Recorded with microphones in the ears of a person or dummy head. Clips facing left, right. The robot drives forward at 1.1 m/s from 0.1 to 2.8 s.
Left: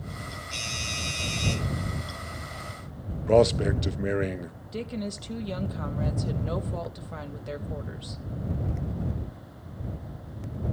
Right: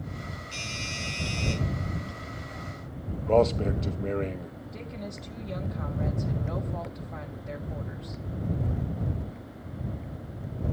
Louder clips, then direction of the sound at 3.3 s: Left 2 dB; 20° left (ahead or behind).